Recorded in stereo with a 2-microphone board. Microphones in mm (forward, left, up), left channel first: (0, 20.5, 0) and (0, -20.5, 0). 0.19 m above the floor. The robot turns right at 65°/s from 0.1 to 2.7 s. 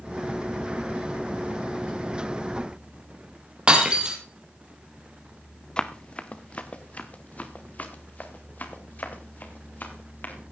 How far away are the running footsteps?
About 1.3 m.